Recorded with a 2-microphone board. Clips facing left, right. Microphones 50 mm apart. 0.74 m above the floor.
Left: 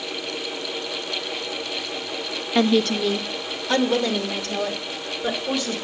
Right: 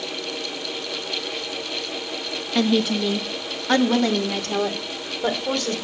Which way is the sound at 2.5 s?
5° left (ahead or behind).